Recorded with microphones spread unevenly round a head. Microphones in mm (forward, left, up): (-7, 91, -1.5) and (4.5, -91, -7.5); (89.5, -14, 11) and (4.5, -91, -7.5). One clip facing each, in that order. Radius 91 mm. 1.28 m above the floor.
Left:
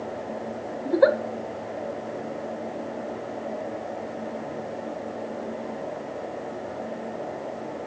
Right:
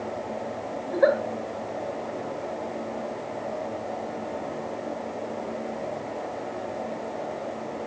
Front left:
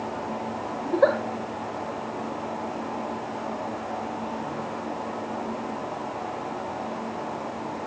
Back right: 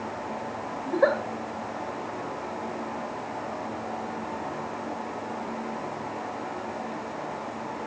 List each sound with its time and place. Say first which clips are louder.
0.8 s a giggle: left 2 dB, front left 2 dB; 115° left, 1.8 m